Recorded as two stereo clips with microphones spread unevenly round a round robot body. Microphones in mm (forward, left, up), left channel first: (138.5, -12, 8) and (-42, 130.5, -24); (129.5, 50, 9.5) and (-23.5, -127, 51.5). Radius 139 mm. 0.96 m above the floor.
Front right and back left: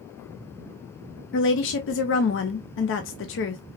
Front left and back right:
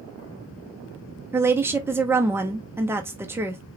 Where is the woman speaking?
45° right, 0.7 m.